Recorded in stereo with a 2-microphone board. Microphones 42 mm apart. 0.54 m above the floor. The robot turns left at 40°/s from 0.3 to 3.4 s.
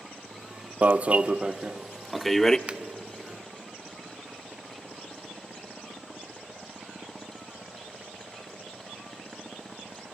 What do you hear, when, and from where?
0.8 s an alarm: 130° right, 0.6 m; by 2.6 s 160° left, 0.6 m
2.7 s a finger snap: 25° right (ahead or behind), 0.9 m